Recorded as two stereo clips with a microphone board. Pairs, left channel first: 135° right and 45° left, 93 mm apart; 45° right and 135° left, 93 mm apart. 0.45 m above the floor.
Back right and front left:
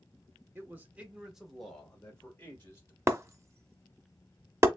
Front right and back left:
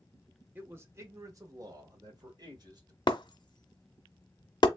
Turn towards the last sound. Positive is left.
turn(degrees=-15)